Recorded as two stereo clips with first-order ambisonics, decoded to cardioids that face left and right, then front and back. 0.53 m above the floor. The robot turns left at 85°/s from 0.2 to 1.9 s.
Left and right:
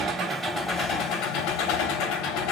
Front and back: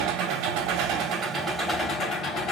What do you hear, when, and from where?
0.0 s an engine running: 145° right, 2.5 m; by 2.5 s 70° left, 2.5 m